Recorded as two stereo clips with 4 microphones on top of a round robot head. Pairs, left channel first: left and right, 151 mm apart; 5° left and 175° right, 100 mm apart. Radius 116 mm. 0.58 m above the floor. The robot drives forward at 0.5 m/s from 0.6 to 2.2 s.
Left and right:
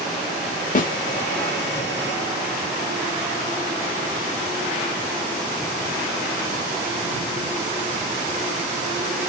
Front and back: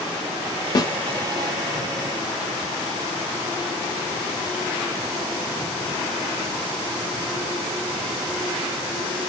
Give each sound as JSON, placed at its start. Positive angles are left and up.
{"t": 0.8, "sound": "a snare drum", "azimuth_deg": 55, "distance_m": 0.8}